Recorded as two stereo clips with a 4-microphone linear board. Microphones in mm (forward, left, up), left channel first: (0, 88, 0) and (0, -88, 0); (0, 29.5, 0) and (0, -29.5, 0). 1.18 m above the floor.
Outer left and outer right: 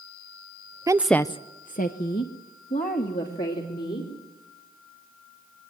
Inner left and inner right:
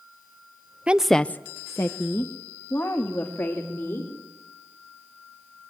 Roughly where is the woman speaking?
Right.